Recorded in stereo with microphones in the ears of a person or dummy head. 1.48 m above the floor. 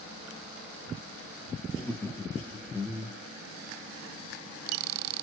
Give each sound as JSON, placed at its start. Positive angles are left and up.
{"t": 1.7, "sound": "laughter", "side_deg": 10, "distance_m": 0.6}